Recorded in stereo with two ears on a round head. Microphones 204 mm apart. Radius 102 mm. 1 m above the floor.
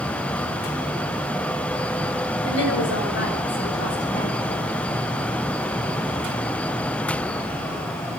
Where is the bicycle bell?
No bicycle bell in this recording.